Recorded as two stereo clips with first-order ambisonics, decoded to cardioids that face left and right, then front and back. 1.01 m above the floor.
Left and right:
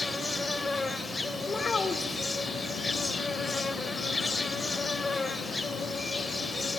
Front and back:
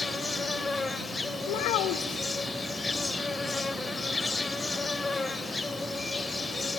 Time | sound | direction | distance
0.0 | an insect | 35° left | 0.8 m
1.5 | a child speaking | 15° left | 1.9 m